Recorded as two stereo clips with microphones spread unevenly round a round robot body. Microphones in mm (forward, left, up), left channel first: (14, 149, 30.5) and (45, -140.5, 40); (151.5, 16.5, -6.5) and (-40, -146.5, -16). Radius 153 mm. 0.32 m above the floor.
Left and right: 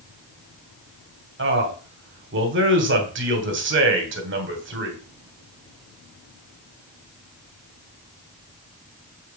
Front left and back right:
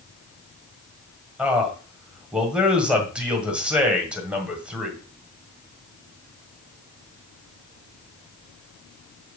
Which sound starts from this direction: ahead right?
A man speaking, at 1.4 s.